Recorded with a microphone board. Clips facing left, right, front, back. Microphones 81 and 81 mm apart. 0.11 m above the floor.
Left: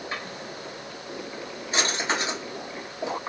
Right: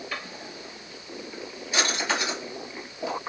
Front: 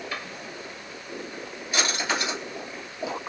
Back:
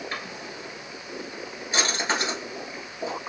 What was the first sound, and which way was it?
A drawer, 135° left.